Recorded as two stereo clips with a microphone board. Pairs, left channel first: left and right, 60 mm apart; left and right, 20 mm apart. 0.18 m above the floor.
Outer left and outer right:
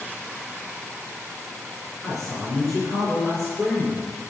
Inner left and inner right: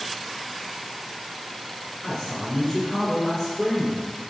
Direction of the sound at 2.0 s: 10° left (ahead or behind).